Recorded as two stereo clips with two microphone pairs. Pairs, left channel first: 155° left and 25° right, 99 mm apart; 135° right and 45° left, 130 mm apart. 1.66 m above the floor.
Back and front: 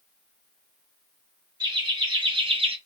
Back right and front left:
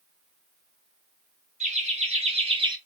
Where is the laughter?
20° left, 1.5 m; by 2.8 s 10° right, 0.7 m.